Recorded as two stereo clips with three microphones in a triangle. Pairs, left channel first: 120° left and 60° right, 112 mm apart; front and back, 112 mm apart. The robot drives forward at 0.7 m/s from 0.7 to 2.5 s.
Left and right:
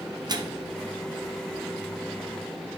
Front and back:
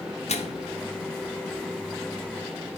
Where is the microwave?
10° right, 0.6 m.